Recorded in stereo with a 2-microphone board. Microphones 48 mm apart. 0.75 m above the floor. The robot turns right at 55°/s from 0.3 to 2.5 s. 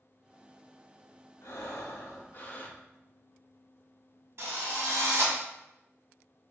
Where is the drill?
60° right (ahead or behind), 1.8 m.